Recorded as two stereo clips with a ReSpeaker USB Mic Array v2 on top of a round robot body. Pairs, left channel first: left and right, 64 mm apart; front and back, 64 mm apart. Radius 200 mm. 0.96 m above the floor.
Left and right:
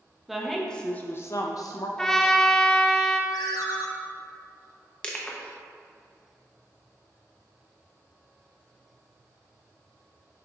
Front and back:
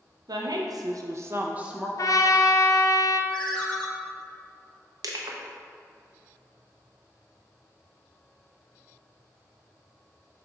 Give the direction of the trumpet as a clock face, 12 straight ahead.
12 o'clock.